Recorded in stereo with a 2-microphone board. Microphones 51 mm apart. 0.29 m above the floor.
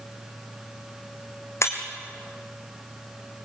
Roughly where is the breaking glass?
Left.